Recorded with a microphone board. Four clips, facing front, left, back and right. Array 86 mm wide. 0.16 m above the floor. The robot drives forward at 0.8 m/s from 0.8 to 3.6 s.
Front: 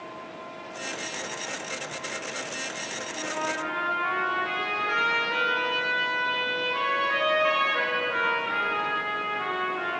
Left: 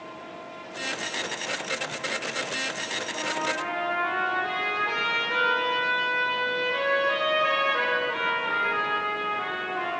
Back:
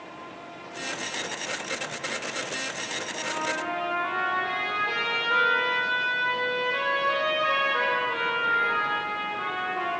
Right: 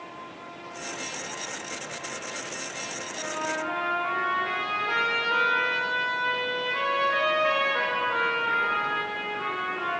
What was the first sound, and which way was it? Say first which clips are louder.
A trumpet: left 1 dB, even; 125° left.